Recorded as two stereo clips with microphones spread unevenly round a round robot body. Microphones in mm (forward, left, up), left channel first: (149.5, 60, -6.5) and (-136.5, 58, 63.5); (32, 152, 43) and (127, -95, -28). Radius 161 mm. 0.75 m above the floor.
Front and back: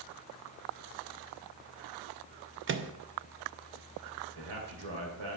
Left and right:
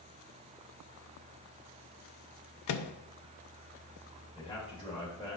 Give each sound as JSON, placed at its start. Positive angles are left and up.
{"t": 2.7, "sound": "a microwave", "azimuth_deg": 130, "distance_m": 0.6}
{"t": 4.3, "sound": "a man speaking", "azimuth_deg": -170, "distance_m": 2.5}